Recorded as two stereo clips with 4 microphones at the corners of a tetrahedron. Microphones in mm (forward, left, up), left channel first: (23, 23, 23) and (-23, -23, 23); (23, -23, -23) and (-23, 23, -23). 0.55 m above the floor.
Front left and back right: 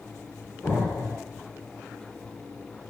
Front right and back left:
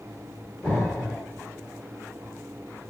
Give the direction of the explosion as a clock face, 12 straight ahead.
11 o'clock.